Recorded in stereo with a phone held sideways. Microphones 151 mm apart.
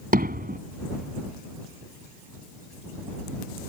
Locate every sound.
0.1 s hammering: 65° right (ahead or behind)